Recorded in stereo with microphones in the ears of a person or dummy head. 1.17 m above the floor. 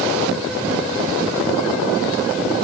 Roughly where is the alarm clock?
No alarm clock in this recording.